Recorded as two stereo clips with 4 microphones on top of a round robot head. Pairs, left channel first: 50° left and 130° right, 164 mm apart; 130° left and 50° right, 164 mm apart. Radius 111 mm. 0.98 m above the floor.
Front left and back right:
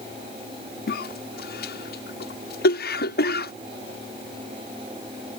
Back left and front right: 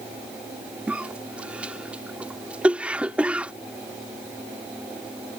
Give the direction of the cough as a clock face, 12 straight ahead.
11 o'clock.